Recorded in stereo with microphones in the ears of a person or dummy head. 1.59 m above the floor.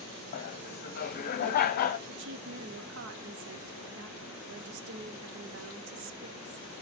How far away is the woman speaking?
About 0.9 m.